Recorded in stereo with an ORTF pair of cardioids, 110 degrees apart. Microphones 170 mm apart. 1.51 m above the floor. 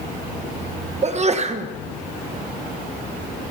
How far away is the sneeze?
About 1.3 m.